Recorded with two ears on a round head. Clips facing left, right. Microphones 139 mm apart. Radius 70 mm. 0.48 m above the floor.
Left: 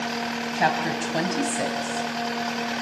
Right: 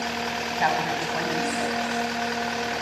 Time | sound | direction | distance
0.6 | a woman speaking | 40° left (ahead or behind) | 3.5 m